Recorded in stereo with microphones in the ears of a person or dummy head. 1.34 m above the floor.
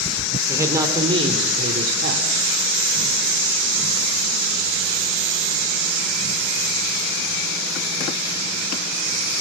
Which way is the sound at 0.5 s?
15° right (ahead or behind).